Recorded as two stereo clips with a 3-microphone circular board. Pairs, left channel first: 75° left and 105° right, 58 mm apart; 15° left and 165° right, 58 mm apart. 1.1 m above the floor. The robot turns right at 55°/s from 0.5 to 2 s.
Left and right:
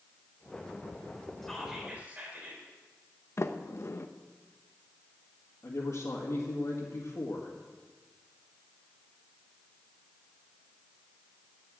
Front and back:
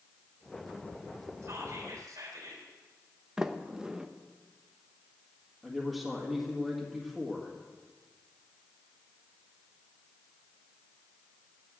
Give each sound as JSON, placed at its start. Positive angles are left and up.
{"t": 1.4, "sound": "whispering", "azimuth_deg": 160, "distance_m": 3.5}
{"t": 3.4, "sound": "a sliding door", "azimuth_deg": 115, "distance_m": 0.7}
{"t": 5.6, "sound": "a man speaking", "azimuth_deg": 105, "distance_m": 2.0}